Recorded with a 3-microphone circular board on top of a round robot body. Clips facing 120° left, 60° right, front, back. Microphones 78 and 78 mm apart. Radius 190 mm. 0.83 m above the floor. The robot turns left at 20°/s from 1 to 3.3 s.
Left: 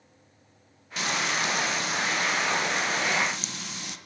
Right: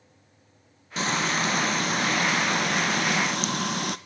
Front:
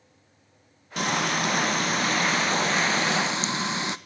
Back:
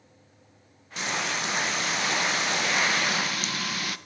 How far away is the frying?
About 0.8 m.